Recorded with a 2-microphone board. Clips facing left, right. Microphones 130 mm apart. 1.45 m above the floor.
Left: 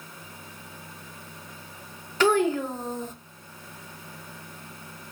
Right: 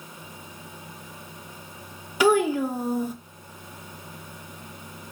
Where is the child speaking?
10° right (ahead or behind), 0.6 m.